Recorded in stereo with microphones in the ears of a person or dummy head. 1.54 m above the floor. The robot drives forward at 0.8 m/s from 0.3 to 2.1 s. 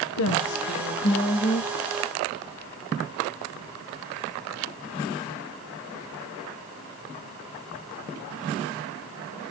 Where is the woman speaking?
70° left (ahead or behind), 1.1 m; by 1.8 s 35° left (ahead or behind), 1.9 m.